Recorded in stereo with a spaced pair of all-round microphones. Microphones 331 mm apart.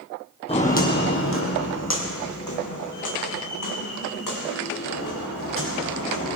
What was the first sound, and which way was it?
Footsteps, 20° left (ahead or behind).